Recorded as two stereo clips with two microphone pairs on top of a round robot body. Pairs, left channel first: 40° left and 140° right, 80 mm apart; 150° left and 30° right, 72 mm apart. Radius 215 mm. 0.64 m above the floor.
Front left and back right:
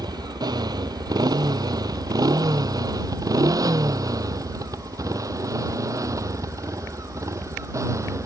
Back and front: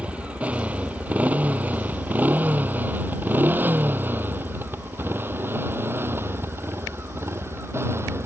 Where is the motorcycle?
105° right; by 8.3 s 85° right.